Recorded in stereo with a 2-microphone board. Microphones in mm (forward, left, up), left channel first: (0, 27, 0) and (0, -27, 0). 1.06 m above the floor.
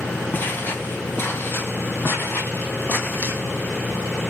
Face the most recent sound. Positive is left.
turn(degrees=40)  # may be behind; listen again after turning